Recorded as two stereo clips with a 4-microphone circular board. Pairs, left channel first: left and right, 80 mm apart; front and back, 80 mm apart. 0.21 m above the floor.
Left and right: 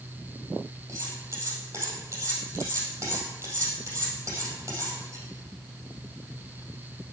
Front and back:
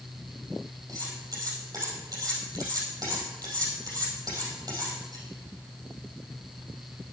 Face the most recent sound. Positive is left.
turn(degrees=-140)